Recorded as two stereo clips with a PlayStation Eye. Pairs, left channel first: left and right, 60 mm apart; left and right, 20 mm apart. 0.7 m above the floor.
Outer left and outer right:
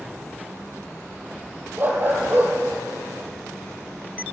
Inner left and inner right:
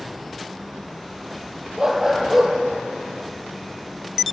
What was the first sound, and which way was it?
A dog barking, 35° right (ahead or behind).